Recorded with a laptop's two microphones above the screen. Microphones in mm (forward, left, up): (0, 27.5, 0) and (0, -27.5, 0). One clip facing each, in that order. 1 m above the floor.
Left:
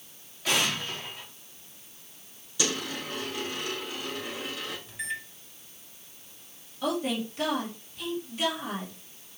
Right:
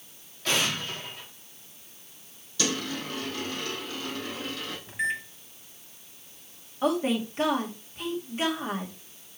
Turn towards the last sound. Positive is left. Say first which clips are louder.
# right 4 dB
turn(degrees=-35)  # may be behind; listen again after turning